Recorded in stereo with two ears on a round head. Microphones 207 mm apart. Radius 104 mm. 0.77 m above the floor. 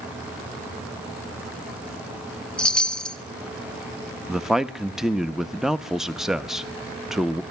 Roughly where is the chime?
Centre.